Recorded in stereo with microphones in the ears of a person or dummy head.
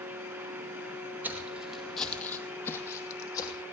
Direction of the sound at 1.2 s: 15° right (ahead or behind).